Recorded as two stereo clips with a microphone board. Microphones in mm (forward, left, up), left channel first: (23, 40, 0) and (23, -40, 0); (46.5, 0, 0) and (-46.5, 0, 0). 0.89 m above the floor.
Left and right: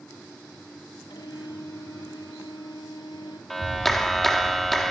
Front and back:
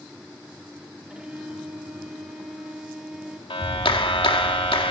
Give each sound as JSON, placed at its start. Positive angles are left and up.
{"t": 1.1, "sound": "a violin", "azimuth_deg": 100, "distance_m": 2.5}
{"t": 3.5, "sound": "a clap", "azimuth_deg": 0, "distance_m": 1.9}